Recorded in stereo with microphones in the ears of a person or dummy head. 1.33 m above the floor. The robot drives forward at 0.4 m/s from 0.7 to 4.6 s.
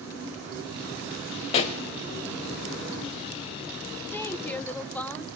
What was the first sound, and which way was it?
A pop, 30° left (ahead or behind).